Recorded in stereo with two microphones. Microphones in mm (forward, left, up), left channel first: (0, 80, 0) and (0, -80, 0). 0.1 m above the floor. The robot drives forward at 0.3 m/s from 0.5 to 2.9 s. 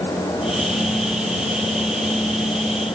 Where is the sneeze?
No sneeze in this recording.